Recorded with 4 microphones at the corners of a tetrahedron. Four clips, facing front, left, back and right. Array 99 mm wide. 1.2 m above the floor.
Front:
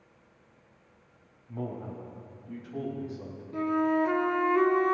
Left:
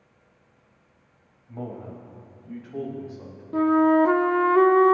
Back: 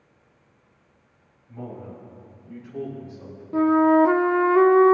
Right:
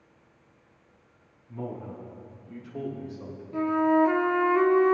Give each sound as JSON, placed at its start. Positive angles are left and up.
{"t": 1.5, "sound": "a man speaking", "azimuth_deg": 65, "distance_m": 5.0}
{"t": 3.5, "sound": "a flute", "azimuth_deg": 145, "distance_m": 0.5}